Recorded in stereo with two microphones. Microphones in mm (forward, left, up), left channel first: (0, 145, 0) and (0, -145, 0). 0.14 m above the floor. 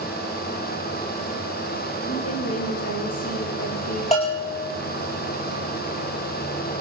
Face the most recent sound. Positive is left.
turn(degrees=20)  # may be behind; listen again after turning